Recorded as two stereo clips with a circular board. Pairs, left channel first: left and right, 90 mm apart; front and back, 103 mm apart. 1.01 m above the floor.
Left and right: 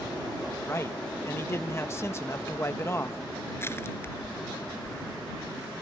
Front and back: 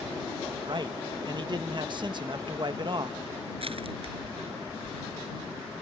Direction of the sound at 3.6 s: 150° left.